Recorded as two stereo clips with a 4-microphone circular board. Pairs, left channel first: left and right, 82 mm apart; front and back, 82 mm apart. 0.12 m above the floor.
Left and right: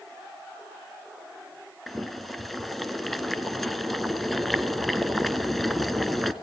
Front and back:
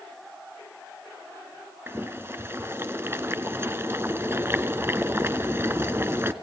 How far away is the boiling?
About 1.0 m.